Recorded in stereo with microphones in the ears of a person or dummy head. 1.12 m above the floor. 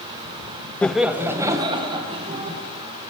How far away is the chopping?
I don't hear chopping.